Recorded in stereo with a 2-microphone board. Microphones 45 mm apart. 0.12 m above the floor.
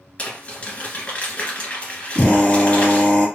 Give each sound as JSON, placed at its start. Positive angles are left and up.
{"t": 0.2, "sound": "crumpling", "side_deg": 30, "distance_m": 1.7}
{"t": 2.1, "sound": "a drill", "side_deg": 20, "distance_m": 2.0}